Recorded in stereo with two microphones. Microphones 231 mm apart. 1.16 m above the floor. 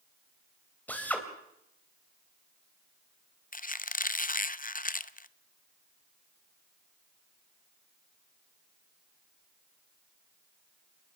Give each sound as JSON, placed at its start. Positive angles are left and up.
{"t": 0.9, "sound": "a drill", "side_deg": 5, "distance_m": 3.0}
{"t": 3.5, "sound": "a squeak", "side_deg": 35, "distance_m": 0.5}